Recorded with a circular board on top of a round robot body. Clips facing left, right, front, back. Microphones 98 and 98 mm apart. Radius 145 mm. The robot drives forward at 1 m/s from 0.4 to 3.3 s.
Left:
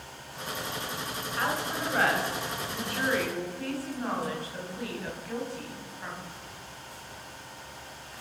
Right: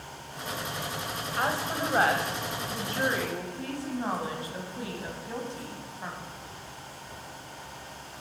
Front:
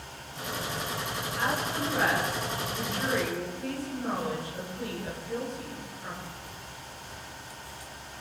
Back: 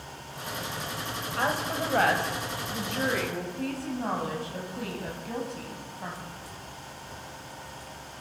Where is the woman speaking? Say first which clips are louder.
Right 2 dB, back 2 dB; 150° right, 5 m; by 6.1 s 160° right, 6.5 m.